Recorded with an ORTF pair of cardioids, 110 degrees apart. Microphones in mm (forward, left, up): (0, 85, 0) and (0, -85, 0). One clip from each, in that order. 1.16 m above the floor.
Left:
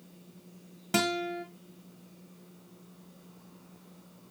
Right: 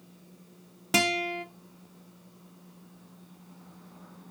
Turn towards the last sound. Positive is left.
turn(degrees=-20)